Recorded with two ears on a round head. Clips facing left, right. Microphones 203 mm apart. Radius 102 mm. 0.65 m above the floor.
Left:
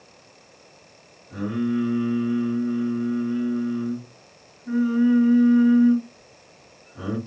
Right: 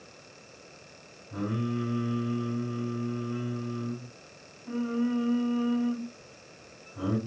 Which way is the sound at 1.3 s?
25° left (ahead or behind).